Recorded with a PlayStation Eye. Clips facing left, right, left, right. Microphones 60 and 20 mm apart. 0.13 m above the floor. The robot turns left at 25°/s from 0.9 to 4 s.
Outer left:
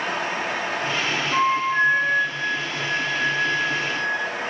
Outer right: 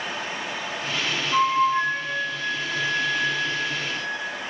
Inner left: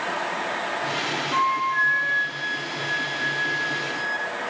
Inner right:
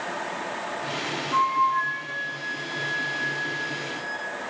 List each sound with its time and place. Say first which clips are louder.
1.3 s a flute: outer right 1 dB, inner right 1 dB; 140° left, 1.0 m; by 4.3 s 70° left, 1.0 m